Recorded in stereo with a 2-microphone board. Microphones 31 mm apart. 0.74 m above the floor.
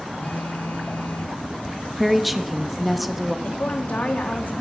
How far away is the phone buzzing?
About 6 m.